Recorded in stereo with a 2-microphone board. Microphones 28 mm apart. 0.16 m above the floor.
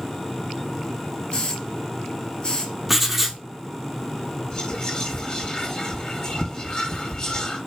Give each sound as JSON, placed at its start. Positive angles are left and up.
{"t": 1.3, "sound": "a hiss", "side_deg": 30, "distance_m": 2.0}
{"t": 2.9, "sound": "writing", "side_deg": -5, "distance_m": 1.0}
{"t": 4.5, "sound": "whispering", "side_deg": 30, "distance_m": 1.8}